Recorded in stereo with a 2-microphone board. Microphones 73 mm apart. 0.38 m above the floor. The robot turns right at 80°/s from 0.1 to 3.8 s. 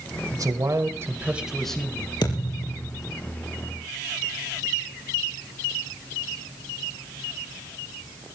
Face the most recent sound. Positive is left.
turn(degrees=-150)